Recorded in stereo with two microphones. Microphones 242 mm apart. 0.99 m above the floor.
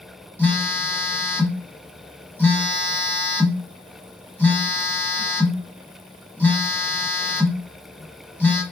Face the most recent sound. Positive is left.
turn(degrees=10)  # may be behind; listen again after turning